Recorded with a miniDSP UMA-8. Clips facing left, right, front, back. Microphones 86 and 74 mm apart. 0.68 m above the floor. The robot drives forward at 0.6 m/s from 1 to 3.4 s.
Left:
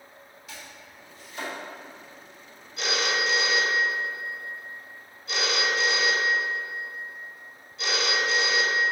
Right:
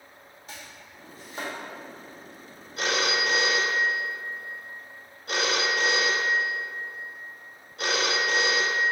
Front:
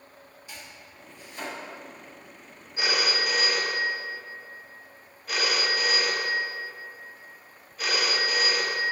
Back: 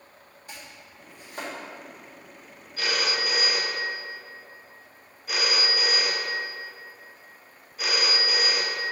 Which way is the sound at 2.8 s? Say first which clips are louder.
Right 1 dB, front 1 dB; 65° right.